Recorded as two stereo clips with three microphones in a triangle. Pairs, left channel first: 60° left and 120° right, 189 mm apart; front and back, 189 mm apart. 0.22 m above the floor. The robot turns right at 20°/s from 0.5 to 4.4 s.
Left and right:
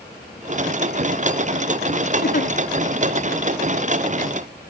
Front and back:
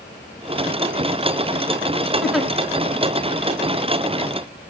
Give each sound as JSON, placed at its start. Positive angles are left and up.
{"t": 2.2, "sound": "a giggle", "azimuth_deg": 90, "distance_m": 0.5}